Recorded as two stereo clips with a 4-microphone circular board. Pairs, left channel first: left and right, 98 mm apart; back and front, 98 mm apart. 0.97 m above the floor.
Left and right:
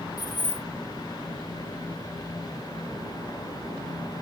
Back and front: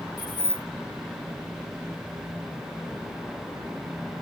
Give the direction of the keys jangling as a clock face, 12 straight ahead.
8 o'clock.